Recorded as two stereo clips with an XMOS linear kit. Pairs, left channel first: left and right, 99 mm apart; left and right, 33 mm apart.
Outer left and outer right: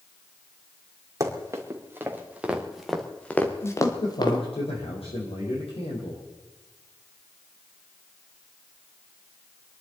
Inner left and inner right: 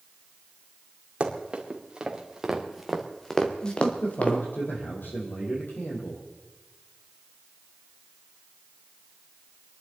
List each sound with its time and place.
1.2 s running footsteps: 35° right (ahead or behind), 3.5 m; by 4.4 s 50° left (ahead or behind), 2.5 m
3.6 s a man speaking: 75° left (ahead or behind), 6 m